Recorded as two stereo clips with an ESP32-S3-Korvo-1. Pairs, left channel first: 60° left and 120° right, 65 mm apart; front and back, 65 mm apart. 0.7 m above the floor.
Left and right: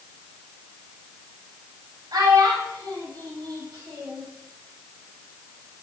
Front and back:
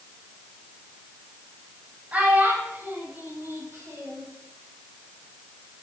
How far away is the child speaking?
About 3 m.